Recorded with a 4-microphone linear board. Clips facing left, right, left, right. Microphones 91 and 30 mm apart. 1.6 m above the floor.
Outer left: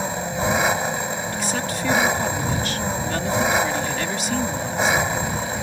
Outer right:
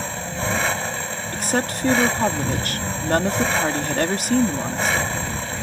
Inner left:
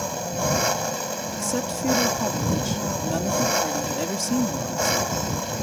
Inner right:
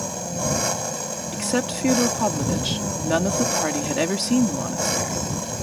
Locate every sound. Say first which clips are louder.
0.0 s an engine running: outer left 3 dB, inner left 1 dB; 15° left (ahead or behind)
1.3 s a woman speaking: outer right 2 dB, inner right 5 dB; 50° right (ahead or behind)